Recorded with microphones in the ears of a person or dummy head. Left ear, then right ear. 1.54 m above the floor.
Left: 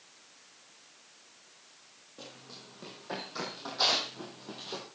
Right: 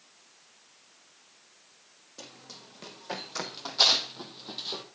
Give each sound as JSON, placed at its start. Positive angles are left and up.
{"t": 2.2, "sound": "running footsteps", "side_deg": -45, "distance_m": 5.0}